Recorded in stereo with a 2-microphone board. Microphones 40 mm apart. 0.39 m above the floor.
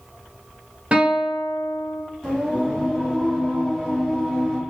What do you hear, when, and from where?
0.9 s a guitar: 30° right (ahead or behind), 1.2 m
2.2 s singing: 10° left (ahead or behind), 2 m